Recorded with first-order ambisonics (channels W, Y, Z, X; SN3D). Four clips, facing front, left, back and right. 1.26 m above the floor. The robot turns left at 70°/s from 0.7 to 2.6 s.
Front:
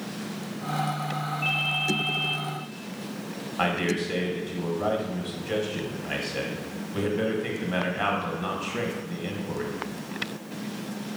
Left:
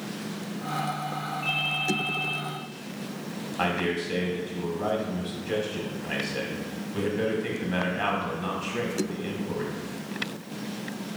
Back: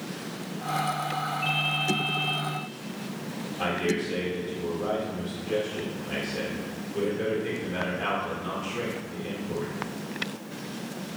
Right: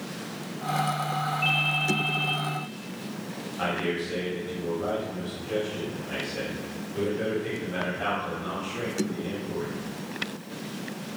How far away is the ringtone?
About 1.1 m.